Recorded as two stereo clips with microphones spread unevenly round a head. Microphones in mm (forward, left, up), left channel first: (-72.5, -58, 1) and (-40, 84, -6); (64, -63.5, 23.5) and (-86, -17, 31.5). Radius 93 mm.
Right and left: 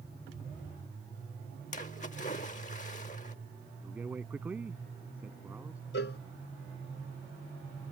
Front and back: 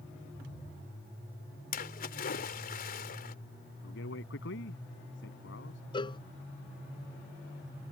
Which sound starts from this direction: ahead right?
A splash, at 1.7 s.